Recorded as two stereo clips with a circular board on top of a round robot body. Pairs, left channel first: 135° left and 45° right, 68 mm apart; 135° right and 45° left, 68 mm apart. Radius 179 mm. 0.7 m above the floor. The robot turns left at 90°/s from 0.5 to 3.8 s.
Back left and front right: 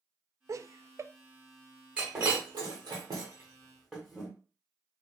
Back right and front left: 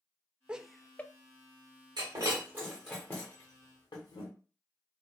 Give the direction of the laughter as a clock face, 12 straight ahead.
1 o'clock.